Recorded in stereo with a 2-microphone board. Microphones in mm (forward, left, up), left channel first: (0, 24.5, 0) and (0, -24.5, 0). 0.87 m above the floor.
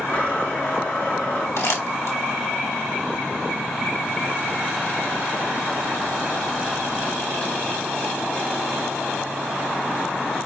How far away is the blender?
About 3.5 m.